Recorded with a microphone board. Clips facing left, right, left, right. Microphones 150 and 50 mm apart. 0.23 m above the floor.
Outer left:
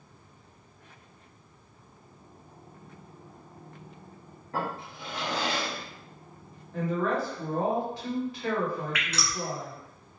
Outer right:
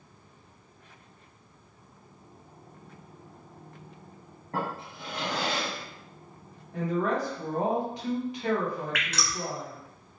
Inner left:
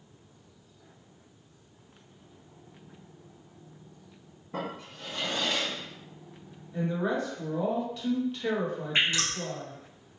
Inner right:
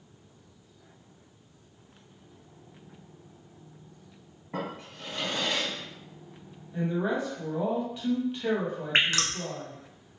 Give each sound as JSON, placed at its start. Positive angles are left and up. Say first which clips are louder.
{"t": 4.5, "sound": "a drawer", "louder": "even, inner right 1 dB", "side_deg": -50, "distance_m": 1.9}
{"t": 6.7, "sound": "a woman speaking", "louder": "even, inner right 1 dB", "side_deg": -20, "distance_m": 1.1}
{"t": 8.9, "sound": "dripping", "louder": "even, inner right 2 dB", "side_deg": -70, "distance_m": 0.9}